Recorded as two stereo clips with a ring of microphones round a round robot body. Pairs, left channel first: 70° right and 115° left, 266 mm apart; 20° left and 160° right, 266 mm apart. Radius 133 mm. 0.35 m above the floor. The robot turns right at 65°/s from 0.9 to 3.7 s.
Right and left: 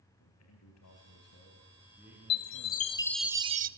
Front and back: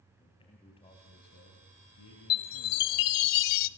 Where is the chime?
35° right, 0.7 m; by 3.7 s 55° left, 0.7 m.